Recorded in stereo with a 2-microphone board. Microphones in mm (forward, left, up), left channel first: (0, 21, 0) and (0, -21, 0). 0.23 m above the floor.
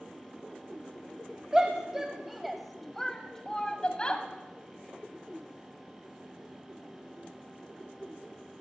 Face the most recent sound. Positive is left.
turn(degrees=25)  # may be behind; listen again after turning